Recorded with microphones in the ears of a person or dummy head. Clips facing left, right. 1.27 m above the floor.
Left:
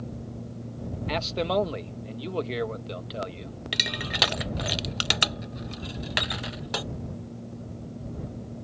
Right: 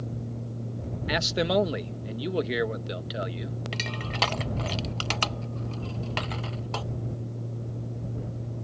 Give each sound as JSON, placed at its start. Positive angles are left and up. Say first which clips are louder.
{"t": 1.1, "sound": "a man speaking", "louder": "right 2 dB", "side_deg": -5}
{"t": 3.7, "sound": "crushing", "louder": "even", "side_deg": 25}